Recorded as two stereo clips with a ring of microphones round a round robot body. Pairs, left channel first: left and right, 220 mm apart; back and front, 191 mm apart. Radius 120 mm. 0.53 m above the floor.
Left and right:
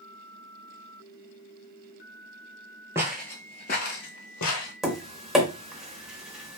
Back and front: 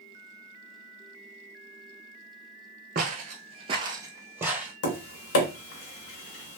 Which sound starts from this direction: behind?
Tapping, at 4.8 s.